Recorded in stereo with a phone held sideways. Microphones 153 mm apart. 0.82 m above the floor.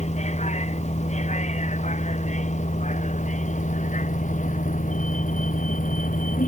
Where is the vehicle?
50° left (ahead or behind); by 6.5 s 65° left (ahead or behind).